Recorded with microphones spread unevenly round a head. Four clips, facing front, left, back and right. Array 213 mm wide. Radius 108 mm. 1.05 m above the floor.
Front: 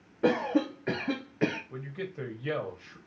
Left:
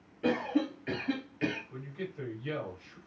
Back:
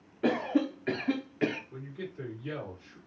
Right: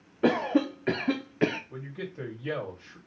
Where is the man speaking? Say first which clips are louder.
Right 2 dB, front 3 dB; 35° right, 2 m.